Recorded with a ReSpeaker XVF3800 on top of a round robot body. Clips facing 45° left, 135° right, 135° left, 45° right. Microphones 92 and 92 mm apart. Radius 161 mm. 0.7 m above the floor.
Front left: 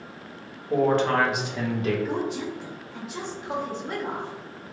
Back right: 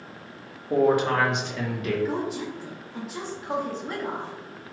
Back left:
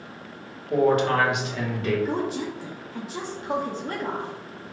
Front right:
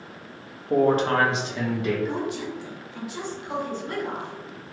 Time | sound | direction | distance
0.7 | a man speaking | 75° right | 1.4 m
2.0 | a woman speaking | 135° left | 0.9 m